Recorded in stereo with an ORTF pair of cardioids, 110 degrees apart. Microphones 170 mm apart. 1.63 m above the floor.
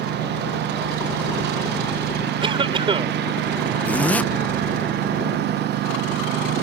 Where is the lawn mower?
70° right.